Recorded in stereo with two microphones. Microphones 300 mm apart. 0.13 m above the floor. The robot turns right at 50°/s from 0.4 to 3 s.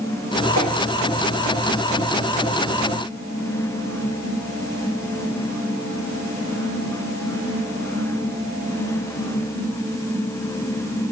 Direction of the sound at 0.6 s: 65° right (ahead or behind).